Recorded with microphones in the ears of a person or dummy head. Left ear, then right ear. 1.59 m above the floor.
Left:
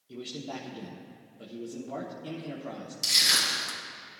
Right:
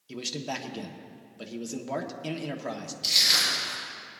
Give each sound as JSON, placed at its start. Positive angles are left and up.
{"t": 0.1, "sound": "a man speaking", "side_deg": -60, "distance_m": 1.4}
{"t": 3.0, "sound": "crushing", "side_deg": 60, "distance_m": 4.0}